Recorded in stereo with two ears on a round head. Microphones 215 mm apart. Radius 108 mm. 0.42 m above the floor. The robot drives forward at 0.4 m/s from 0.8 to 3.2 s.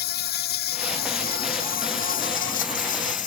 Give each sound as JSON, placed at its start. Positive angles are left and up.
{"t": 0.0, "sound": "an insect", "side_deg": 45}